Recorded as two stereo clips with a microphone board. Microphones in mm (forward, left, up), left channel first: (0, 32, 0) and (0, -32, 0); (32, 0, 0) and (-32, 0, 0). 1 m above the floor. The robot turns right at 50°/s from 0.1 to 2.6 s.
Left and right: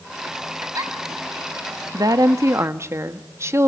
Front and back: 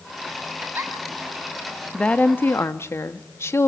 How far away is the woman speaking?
About 1.3 m.